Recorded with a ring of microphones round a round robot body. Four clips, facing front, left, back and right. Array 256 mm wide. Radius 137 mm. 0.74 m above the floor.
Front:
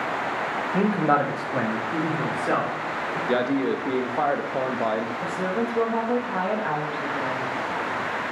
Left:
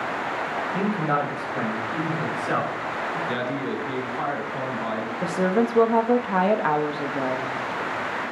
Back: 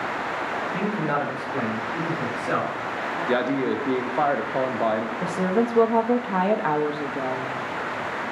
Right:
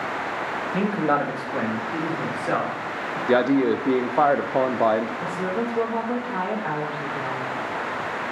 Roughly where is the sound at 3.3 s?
Right.